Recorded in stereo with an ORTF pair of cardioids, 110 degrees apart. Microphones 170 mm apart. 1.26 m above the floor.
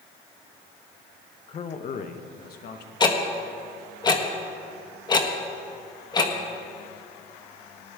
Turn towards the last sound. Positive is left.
turn(degrees=25)